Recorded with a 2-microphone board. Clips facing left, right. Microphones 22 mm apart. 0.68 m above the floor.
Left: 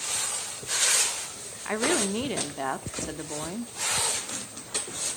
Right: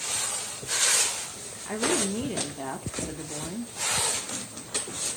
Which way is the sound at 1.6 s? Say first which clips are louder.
Left 1 dB; 35° left (ahead or behind).